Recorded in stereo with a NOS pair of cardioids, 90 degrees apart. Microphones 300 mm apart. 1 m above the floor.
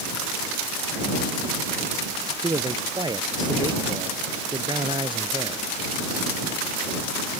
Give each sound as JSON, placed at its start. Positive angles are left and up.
{"t": 2.4, "sound": "a man speaking", "azimuth_deg": -15}